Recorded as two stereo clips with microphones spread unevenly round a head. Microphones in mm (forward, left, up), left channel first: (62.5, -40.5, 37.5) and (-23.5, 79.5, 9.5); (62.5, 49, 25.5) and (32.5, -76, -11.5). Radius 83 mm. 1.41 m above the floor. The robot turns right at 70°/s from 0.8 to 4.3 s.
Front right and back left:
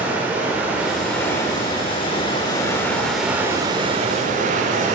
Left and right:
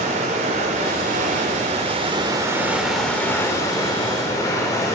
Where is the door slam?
I don't hear a door slam.